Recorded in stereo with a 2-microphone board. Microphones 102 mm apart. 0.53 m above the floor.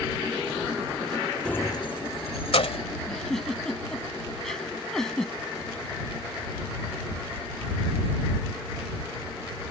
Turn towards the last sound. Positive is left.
turn(degrees=5)  # may be behind; listen again after turning